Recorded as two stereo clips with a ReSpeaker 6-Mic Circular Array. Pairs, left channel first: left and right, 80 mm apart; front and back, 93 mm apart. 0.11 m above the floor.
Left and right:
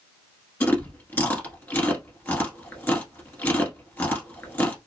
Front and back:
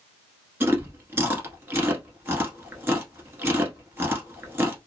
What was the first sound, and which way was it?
Chewing, 135° left.